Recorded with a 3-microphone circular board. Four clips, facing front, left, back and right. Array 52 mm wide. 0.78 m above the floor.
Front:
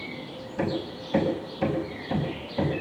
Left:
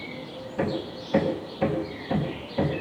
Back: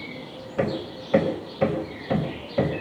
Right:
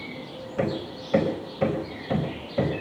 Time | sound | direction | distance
0.6 | hammering | 155° right | 4 m